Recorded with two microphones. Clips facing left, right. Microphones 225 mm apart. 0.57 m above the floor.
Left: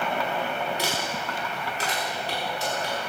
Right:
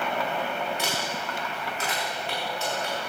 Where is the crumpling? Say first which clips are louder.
Left 1 dB; 35° left (ahead or behind), 5.5 m.